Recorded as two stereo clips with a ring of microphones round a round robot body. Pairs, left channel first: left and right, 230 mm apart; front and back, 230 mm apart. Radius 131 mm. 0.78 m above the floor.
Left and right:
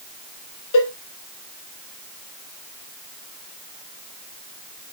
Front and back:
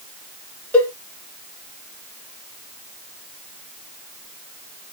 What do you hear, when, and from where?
0.7 s a cowbell: 85° left, 1.3 m